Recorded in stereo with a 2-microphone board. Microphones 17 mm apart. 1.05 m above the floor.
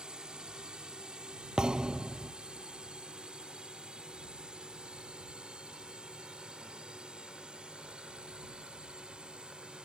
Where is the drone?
60° right (ahead or behind); by 9.8 s 75° right (ahead or behind).